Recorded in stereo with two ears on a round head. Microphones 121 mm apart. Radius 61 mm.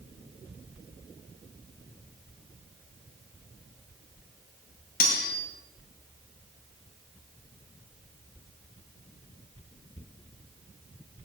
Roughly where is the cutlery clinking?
Left.